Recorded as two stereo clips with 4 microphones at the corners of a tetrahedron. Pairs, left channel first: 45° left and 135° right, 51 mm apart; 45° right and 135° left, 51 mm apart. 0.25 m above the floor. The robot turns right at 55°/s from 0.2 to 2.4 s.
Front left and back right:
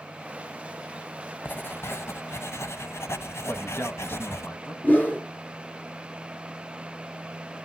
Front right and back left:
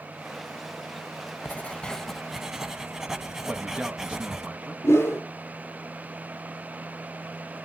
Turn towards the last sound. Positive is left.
turn(degrees=-5)